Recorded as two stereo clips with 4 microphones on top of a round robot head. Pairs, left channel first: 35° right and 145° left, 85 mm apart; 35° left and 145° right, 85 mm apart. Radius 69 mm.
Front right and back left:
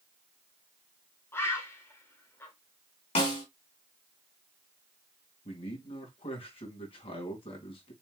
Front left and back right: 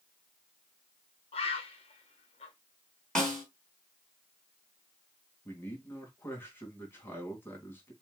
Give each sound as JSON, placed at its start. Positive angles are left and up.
{"t": 1.3, "sound": "a bird", "azimuth_deg": 25, "distance_m": 1.7}
{"t": 3.1, "sound": "a snare drum", "azimuth_deg": -45, "distance_m": 4.0}
{"t": 5.5, "sound": "a man speaking", "azimuth_deg": -30, "distance_m": 2.5}